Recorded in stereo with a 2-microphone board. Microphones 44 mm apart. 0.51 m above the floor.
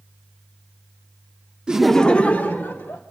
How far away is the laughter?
About 0.6 m.